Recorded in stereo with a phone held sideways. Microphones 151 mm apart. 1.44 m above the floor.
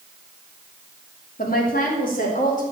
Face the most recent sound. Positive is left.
turn(degrees=65)  # may be behind; listen again after turning